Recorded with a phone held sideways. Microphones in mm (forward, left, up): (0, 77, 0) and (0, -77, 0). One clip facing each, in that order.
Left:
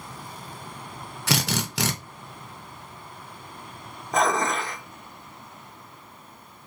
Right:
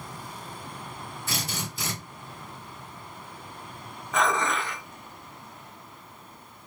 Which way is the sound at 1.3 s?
75° left (ahead or behind).